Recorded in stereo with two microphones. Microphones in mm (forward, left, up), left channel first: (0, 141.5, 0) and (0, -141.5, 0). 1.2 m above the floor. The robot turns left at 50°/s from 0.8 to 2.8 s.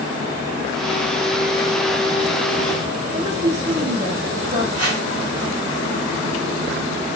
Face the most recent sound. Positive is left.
turn(degrees=-55)  # may be behind; listen again after turning